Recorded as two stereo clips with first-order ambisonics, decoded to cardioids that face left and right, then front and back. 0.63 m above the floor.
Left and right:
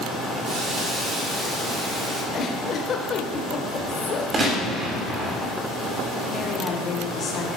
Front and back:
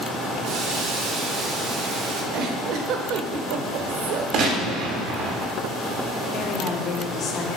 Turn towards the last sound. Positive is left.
turn(degrees=40)